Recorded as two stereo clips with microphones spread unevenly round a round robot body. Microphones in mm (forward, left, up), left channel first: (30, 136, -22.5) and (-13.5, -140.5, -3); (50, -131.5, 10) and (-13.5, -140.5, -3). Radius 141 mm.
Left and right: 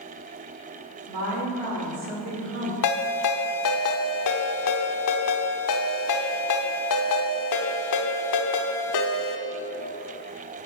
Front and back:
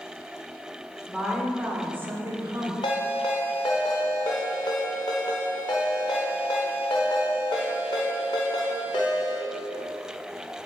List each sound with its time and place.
1.1 s a woman speaking: 95° right, 2.5 m; by 2.7 s 155° right, 2.5 m
2.8 s a ringtone: 60° left, 0.8 m